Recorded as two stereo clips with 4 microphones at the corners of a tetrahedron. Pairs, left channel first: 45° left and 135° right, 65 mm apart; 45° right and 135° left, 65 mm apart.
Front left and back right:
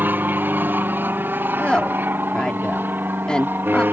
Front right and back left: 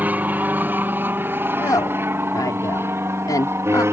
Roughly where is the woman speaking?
Ahead right.